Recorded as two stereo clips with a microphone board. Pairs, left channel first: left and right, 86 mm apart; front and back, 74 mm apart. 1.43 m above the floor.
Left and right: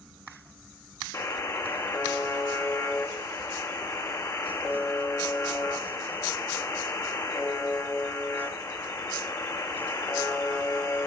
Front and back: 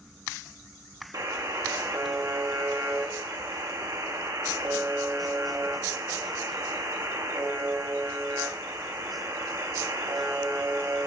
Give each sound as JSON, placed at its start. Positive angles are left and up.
{"t": 1.1, "sound": "a buzzer", "azimuth_deg": 145, "distance_m": 1.0}